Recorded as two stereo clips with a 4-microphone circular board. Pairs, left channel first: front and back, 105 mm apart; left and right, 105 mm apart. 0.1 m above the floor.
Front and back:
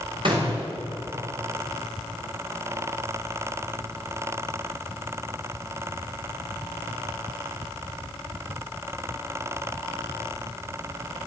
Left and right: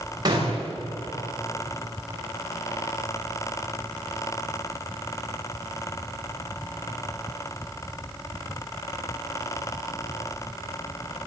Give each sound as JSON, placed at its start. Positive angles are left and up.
{"t": 0.2, "sound": "a gunshot", "azimuth_deg": -140, "distance_m": 9.5}